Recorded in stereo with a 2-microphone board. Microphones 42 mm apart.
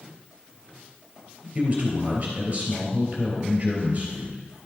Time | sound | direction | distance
1.6 | a man speaking | 35° right (ahead or behind) | 3 m